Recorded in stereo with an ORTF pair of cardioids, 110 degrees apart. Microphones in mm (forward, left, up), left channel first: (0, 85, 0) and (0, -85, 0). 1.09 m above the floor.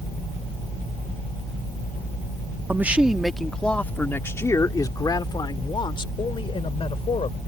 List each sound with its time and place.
2.7 s a man speaking: 10° right; by 7.4 s 35° left